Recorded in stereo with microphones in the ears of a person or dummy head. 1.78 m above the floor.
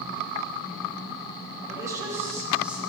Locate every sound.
1.7 s a woman speaking: 25° right (ahead or behind), 1.4 m; by 2.8 s 10° right (ahead or behind), 1.7 m